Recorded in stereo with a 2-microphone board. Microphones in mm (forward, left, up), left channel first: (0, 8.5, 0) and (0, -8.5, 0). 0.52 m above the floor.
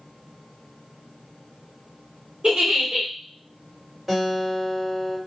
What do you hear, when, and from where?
2.4 s a giggle: 55° right (ahead or behind), 1.7 m
4.1 s a guitar: 15° right (ahead or behind), 2 m